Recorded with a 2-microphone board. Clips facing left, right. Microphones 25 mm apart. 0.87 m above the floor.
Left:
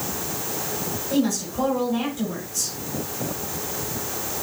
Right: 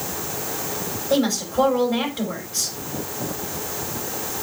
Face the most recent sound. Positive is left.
turn(degrees=-50)  # may be behind; listen again after turning